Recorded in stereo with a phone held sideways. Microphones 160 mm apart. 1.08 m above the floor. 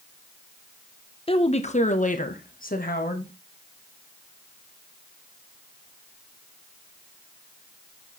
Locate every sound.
1.3 s a woman speaking: 35° left (ahead or behind), 0.9 m; by 3.3 s 65° left (ahead or behind), 1.8 m